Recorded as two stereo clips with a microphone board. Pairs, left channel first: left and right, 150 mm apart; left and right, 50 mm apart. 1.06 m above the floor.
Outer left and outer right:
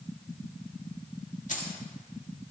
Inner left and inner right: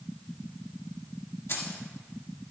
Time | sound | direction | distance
1.5 | keys jangling | 55° left (ahead or behind) | 1.7 m